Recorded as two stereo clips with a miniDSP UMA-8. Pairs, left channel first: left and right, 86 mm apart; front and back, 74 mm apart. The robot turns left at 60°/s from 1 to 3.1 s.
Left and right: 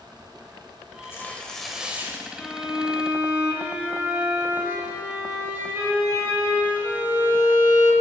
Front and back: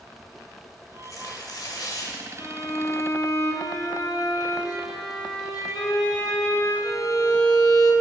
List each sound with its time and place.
1.0 s tearing paper: 35° left, 1.4 m; by 2.3 s 40° right, 1.4 m
2.4 s a violin: 15° left, 2 m; by 7.9 s 25° right, 2 m